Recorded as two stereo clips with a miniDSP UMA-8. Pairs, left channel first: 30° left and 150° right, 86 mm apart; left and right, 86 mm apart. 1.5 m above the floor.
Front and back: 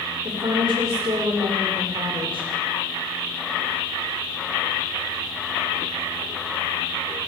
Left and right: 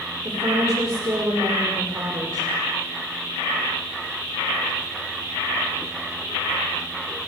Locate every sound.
0.2 s a woman speaking: 135° right, 5.5 m